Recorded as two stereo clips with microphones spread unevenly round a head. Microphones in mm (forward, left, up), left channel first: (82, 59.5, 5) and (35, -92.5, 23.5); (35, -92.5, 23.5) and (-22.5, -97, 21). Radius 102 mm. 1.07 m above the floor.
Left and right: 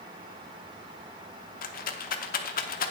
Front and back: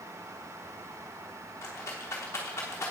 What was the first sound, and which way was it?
A rattle, 55° left.